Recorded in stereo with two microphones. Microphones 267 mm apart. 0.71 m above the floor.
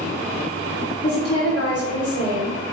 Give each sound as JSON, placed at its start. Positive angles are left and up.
{"t": 1.0, "sound": "a woman speaking", "side_deg": 60, "distance_m": 2.0}